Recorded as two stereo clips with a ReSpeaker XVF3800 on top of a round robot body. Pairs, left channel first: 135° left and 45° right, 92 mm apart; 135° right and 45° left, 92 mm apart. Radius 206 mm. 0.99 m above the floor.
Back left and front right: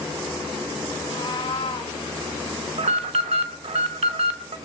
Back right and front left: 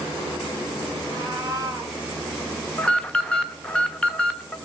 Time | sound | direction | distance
1.0 | a cat meowing | 90° left | 1.4 m
2.8 | an alarm | 55° right | 0.8 m